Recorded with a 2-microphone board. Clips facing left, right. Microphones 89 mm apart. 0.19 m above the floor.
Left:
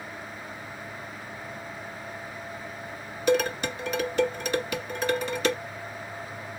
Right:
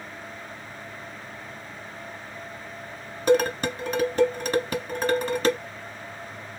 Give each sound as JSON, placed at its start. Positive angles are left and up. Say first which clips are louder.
{"t": 3.3, "sound": "dishes clattering", "louder": "right 3 dB", "side_deg": -40, "distance_m": 1.2}